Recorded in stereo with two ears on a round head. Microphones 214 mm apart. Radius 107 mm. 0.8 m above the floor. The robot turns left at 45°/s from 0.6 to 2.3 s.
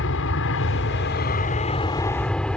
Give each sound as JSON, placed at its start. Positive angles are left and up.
{"t": 0.0, "sound": "an aircraft", "azimuth_deg": 80}